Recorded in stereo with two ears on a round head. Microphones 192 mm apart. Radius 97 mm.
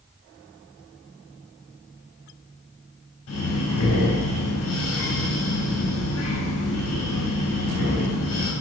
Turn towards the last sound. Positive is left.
turn(degrees=80)